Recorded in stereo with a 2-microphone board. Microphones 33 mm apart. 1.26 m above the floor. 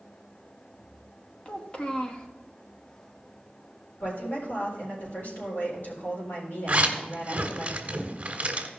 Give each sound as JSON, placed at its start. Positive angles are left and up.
{"t": 1.4, "sound": "a child speaking", "side_deg": 30, "distance_m": 1.0}
{"t": 4.0, "sound": "a woman speaking", "side_deg": 60, "distance_m": 4.0}
{"t": 6.7, "sound": "a zipper", "side_deg": -35, "distance_m": 1.5}